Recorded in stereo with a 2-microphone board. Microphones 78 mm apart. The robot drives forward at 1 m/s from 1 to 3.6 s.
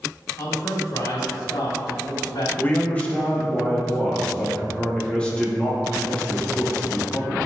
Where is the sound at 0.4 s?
60° left (ahead or behind), 2.5 m; by 2.5 s 85° left, 2.5 m.